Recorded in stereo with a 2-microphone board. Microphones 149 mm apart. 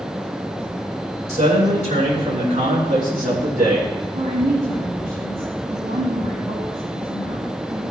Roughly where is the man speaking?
Right.